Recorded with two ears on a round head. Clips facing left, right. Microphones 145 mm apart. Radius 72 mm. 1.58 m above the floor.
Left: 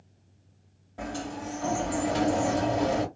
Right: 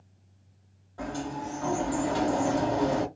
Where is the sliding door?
25° left (ahead or behind), 1.7 m.